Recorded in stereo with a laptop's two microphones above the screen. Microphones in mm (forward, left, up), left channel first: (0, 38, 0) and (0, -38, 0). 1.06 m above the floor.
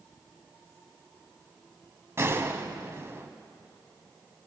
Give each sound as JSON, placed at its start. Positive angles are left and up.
{"t": 2.2, "sound": "a gunshot", "side_deg": -35, "distance_m": 1.1}